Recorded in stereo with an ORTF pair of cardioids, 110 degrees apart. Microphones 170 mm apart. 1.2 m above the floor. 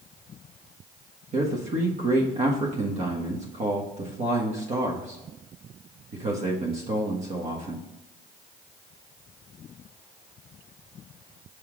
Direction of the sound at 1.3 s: 40° right.